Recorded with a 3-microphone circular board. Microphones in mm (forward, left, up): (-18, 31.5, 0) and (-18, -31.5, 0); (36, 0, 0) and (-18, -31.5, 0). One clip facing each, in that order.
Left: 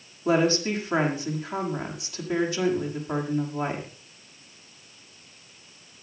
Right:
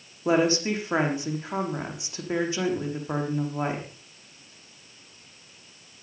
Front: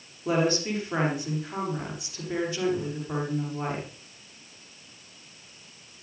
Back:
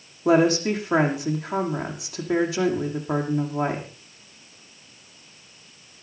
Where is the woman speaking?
155° right, 6 m.